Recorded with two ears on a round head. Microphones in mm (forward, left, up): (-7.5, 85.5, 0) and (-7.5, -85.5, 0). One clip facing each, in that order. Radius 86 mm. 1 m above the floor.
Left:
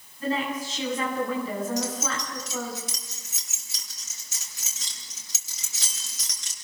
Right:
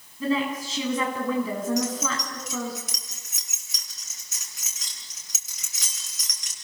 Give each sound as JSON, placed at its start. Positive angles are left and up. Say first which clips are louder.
{"t": 0.2, "sound": "a woman speaking", "louder": "right 3 dB", "side_deg": -65, "distance_m": 9.5}
{"t": 1.8, "sound": "keys jangling", "louder": "right 3 dB", "side_deg": 25, "distance_m": 6.5}